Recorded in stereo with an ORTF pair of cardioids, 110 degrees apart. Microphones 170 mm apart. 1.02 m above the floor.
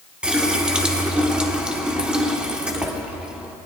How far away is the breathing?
I don't hear breathing.